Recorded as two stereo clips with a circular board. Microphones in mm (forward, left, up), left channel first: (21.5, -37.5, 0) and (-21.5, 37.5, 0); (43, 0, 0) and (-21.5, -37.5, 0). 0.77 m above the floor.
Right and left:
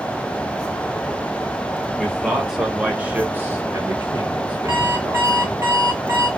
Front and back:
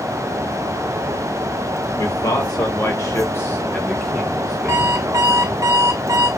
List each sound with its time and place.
2.0 s a man speaking: 30° left, 2.0 m; by 5.5 s 160° left, 1.7 m
4.7 s an alarm clock: 175° left, 2.5 m